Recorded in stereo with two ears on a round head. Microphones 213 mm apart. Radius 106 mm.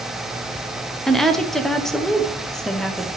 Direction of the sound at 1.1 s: Centre (ahead or behind).